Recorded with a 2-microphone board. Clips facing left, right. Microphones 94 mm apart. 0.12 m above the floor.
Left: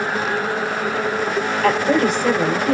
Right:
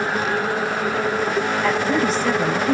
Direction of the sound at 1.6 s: 60° left (ahead or behind).